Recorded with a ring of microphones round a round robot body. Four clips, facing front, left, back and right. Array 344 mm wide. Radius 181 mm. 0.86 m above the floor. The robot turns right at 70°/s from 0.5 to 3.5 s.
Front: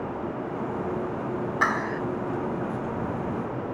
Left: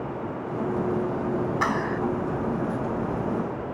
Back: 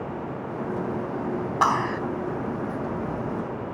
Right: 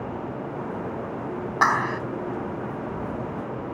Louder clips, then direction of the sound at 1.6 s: Right 3 dB, back 5 dB; 145° right.